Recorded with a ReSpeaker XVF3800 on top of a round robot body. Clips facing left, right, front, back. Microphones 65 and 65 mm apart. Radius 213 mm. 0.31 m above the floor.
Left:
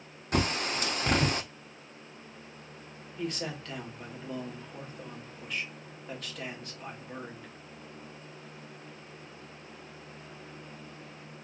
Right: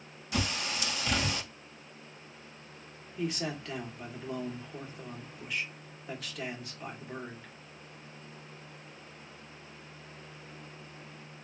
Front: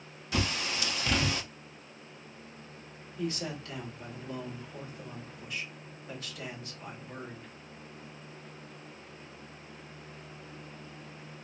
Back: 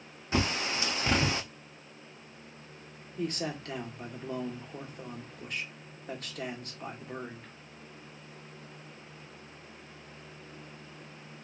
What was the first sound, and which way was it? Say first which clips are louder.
A bird: left 4 dB, back 2 dB; 125° left.